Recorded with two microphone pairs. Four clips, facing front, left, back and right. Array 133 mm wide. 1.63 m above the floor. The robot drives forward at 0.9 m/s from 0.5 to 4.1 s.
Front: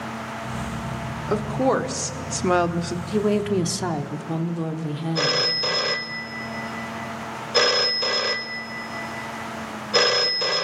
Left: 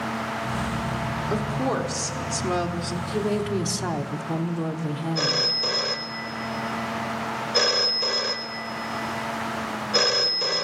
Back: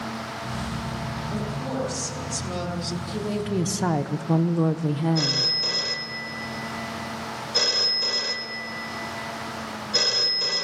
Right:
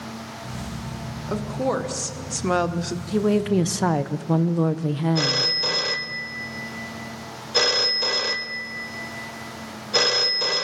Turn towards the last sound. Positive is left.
turn(degrees=-20)